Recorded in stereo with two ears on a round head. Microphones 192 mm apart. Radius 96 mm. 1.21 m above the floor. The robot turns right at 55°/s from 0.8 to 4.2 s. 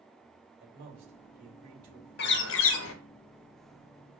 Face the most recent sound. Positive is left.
turn(degrees=165)